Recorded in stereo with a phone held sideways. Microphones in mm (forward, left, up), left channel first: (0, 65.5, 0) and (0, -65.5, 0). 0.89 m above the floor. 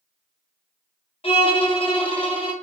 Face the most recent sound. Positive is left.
turn(degrees=45)  # may be behind; listen again after turning